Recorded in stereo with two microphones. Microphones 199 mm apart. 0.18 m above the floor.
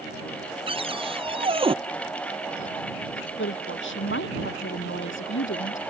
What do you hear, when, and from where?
0.7 s a cupboard door: 30° right (ahead or behind)
3.4 s a woman speaking: 80° left